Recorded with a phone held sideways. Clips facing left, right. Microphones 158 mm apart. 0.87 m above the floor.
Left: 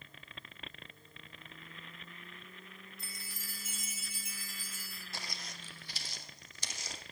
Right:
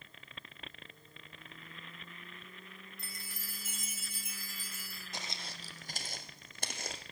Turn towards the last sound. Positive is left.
turn(degrees=-55)  # may be behind; listen again after turning